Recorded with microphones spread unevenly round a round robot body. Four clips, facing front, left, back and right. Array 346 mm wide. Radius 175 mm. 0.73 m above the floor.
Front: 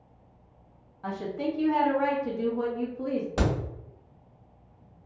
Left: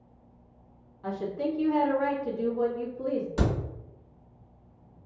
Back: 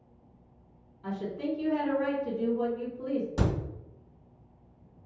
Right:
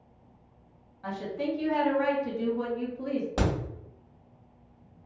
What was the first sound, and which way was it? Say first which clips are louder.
A woman speaking: left 1 dB, front 2 dB; 15° right.